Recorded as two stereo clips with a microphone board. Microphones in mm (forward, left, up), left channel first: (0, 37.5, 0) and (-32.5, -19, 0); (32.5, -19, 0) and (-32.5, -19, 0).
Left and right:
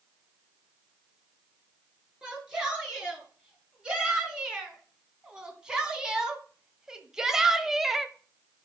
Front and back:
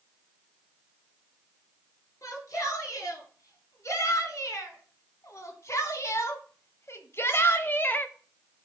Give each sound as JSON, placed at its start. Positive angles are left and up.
{"t": 2.2, "sound": "a shout", "azimuth_deg": -40, "distance_m": 5.0}